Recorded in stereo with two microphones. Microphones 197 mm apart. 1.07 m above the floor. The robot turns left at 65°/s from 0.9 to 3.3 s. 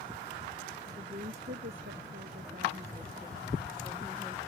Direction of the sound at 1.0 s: 25° right.